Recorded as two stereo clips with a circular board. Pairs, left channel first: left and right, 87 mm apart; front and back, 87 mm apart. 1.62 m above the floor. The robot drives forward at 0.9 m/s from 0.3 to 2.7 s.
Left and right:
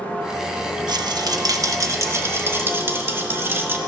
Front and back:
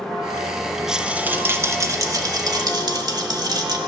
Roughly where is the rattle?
Right.